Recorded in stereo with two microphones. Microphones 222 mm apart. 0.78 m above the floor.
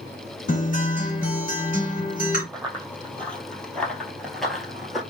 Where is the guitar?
40° left (ahead or behind), 2.0 m.